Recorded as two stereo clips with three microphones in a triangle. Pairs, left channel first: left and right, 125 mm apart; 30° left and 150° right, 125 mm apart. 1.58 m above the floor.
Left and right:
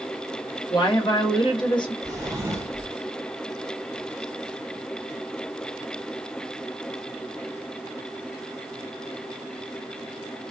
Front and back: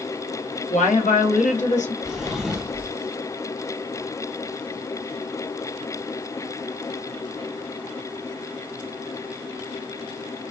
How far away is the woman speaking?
About 1.0 m.